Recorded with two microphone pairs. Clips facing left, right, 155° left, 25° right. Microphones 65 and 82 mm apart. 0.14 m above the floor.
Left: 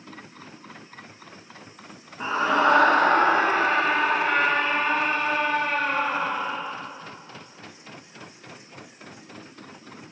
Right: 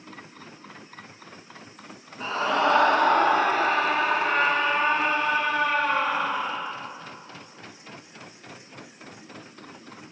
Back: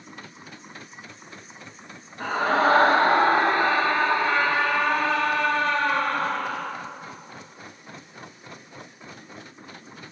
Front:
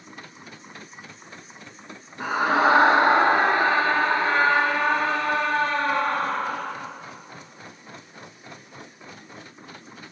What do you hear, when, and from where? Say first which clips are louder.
2.2 s a scream: left 3 dB, front 1 dB; 45° left, 1.4 m; by 6.7 s 35° left, 3.5 m